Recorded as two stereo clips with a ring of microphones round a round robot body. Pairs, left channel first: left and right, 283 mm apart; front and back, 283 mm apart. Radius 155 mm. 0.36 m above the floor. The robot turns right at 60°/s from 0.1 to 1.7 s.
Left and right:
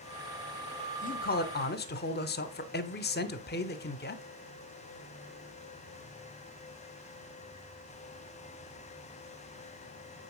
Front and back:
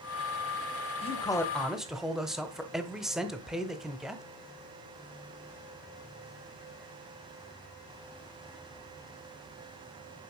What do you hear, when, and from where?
1.0 s a man speaking: 50° left, 0.9 m; by 4.2 s 95° left, 0.9 m